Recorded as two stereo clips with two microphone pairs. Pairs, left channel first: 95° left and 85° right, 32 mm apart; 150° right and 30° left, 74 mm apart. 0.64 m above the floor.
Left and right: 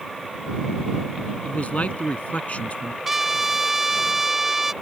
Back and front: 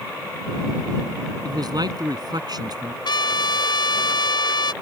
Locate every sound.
1.4 s a man speaking: 55° left
3.0 s a trumpet: 165° right